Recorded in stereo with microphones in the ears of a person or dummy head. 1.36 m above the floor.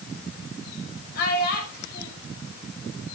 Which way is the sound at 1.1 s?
55° left (ahead or behind).